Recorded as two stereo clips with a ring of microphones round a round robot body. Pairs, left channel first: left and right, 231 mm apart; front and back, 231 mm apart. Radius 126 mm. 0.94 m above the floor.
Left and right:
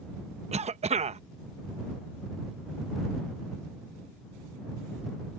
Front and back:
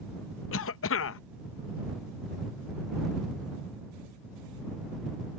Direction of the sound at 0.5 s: 30° right.